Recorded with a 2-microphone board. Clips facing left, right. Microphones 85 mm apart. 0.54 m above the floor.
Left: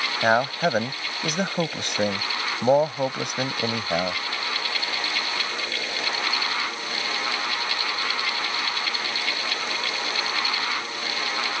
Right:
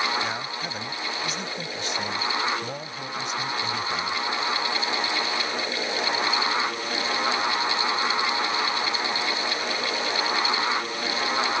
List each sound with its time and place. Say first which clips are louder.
0.2 s a man speaking: left 10 dB; 65° left (ahead or behind)